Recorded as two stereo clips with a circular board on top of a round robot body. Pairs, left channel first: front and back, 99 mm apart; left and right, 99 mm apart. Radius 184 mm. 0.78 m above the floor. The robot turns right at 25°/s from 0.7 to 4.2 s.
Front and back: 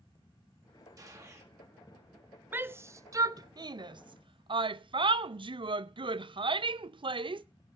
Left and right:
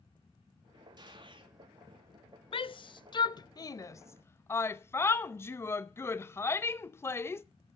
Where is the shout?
110° left, 0.7 m; by 7.4 s 155° left, 0.7 m.